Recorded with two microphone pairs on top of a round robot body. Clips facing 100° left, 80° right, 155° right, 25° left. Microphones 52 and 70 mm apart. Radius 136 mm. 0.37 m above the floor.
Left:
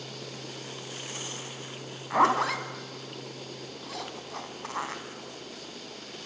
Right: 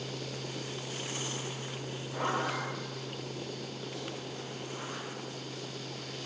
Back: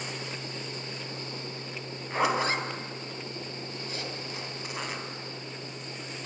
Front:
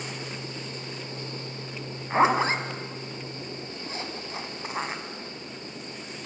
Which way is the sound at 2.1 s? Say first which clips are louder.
Left 9 dB, front 5 dB; 85° left.